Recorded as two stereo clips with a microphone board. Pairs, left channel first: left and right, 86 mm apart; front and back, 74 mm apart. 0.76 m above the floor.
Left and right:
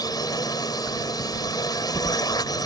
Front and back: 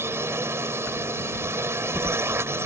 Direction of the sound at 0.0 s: 130° left.